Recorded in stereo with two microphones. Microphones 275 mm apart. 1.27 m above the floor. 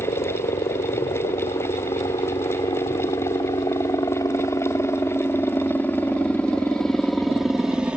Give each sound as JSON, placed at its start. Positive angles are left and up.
{"t": 0.0, "sound": "a helicopter", "side_deg": 25}